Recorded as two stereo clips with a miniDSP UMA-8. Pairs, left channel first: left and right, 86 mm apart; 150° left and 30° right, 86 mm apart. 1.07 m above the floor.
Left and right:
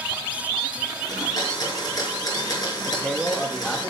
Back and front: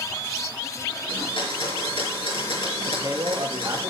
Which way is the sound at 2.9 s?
Straight ahead.